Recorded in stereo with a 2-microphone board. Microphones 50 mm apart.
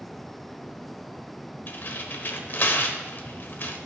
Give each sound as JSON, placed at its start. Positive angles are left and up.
{"t": 1.7, "sound": "tearing paper", "side_deg": 45, "distance_m": 0.9}